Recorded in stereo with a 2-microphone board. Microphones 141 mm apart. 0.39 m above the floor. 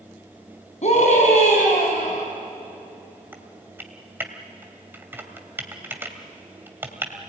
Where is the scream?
60° left (ahead or behind), 3.5 m.